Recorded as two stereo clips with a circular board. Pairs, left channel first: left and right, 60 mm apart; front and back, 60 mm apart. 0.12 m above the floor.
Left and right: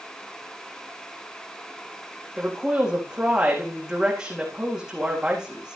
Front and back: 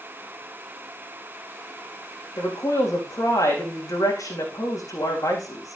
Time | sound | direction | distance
2.4 | a woman speaking | 10° right | 5.5 m